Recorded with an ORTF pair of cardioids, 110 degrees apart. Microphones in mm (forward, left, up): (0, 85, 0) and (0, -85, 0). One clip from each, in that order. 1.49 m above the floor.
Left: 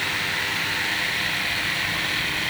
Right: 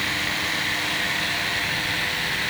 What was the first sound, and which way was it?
Only background noise.